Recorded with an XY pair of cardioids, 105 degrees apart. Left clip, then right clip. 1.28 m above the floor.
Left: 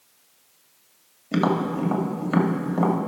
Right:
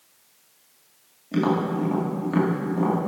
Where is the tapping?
45° left, 1.8 m.